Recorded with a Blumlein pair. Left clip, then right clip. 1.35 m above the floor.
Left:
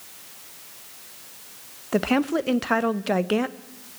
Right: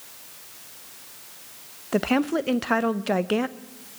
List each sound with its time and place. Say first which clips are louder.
1.9 s a woman speaking: left 1 dB; straight ahead, 0.9 m